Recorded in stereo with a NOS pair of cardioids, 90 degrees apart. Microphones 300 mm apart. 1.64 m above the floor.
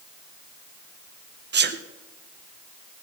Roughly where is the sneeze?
Ahead right.